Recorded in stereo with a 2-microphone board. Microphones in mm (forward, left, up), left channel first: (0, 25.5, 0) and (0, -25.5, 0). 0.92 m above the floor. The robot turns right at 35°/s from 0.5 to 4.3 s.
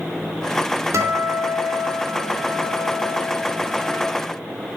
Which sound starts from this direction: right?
A guitar, at 0.9 s.